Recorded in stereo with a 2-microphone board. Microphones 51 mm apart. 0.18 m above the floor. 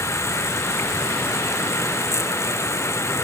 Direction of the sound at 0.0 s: 65° left (ahead or behind).